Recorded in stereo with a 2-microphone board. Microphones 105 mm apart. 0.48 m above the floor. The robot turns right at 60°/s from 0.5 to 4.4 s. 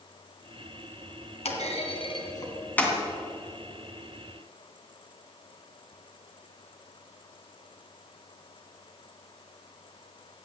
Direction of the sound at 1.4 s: 80° left.